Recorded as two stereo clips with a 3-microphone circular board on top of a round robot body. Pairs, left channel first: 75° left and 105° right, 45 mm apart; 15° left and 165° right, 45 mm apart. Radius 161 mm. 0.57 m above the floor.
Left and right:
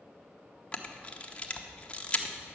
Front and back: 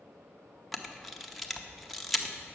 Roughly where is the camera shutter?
Left.